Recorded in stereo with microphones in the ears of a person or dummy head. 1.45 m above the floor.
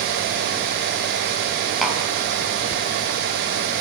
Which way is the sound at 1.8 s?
5° right (ahead or behind).